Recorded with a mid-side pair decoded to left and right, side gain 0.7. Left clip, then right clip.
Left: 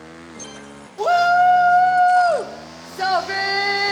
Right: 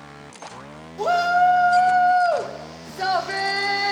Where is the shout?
15° left, 0.5 m.